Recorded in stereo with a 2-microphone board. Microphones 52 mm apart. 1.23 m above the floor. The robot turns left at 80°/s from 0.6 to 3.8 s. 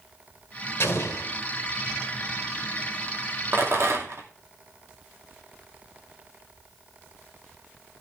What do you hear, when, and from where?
0.8 s an explosion: 115° left, 1.9 m; by 1.3 s 75° left, 1.9 m
3.5 s a rattle: 45° right (ahead or behind), 2.5 m; by 4.3 s 70° right (ahead or behind), 2.5 m